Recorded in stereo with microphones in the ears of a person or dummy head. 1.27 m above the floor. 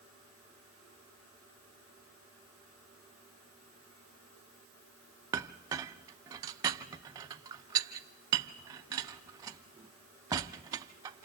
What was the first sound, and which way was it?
A clink, 20° right (ahead or behind).